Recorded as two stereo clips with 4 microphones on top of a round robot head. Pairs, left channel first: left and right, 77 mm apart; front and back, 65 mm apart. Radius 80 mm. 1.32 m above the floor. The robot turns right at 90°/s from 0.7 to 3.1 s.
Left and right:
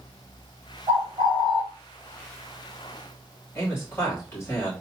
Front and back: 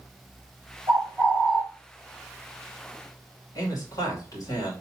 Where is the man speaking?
30° left, 2.5 m.